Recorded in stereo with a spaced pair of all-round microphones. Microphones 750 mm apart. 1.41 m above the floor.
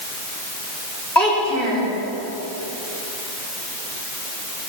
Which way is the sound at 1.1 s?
35° left (ahead or behind).